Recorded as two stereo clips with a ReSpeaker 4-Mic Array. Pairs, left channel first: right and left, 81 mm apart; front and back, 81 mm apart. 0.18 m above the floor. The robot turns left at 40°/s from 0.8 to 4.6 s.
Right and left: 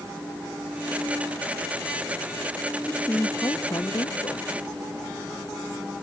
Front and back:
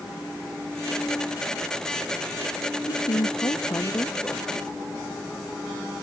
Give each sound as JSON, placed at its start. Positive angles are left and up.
{"t": 2.9, "sound": "a woman speaking", "azimuth_deg": -15}